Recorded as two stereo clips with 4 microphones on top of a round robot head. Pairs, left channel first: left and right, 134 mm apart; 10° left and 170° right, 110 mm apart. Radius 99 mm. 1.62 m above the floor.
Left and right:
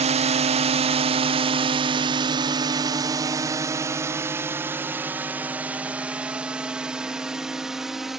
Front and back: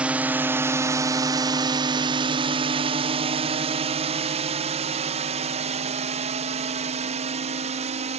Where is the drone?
95° right; by 8.2 s straight behind.